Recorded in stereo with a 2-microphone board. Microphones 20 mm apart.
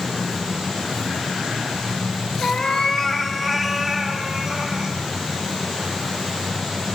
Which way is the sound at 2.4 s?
45° left (ahead or behind).